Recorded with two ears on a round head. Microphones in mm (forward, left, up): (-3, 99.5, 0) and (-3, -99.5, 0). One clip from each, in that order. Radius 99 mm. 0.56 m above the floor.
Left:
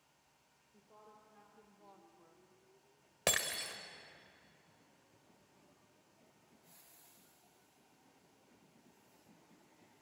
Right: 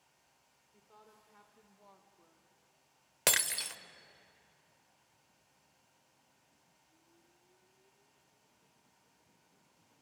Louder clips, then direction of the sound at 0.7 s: Even; 65° right (ahead or behind).